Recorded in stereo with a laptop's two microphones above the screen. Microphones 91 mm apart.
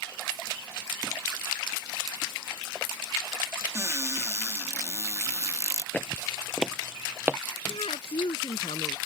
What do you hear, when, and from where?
3.8 s a cupboard door: 35° right (ahead or behind)
5.9 s footsteps: 20° left (ahead or behind); by 7.4 s 20° right (ahead or behind)
7.7 s a woman speaking: 75° left (ahead or behind)